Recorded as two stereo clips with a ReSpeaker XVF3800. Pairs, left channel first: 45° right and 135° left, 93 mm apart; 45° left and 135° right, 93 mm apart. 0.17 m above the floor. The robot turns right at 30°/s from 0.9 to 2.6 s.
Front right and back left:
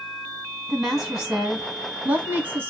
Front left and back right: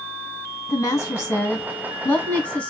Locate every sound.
0.7 s a woman speaking: 55° left, 1.3 m; by 2.7 s 105° left, 1.3 m